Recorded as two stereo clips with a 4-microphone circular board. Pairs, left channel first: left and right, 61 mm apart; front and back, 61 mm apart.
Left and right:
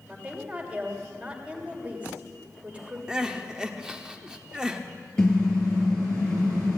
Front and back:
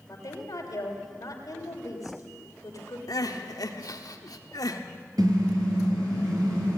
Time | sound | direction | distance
0.1 | a woman speaking | 25° right | 3 m
3.1 | crying | 10° right | 1.2 m
5.2 | a car horn | 170° left | 7 m